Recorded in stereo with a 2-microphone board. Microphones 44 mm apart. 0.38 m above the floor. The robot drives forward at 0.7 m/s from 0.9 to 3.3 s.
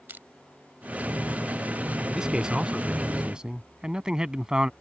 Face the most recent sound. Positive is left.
turn(degrees=-20)  # may be behind; listen again after turning